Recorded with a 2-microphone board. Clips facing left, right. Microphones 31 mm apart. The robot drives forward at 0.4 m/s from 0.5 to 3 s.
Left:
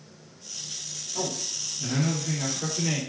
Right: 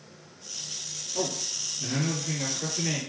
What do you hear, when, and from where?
1.1 s a man speaking: 5° right (ahead or behind), 1.5 m; by 3.0 s centre (ahead or behind), 2 m